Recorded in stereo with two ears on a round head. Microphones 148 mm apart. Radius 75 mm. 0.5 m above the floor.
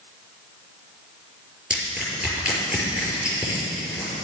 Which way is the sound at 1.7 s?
5° right (ahead or behind).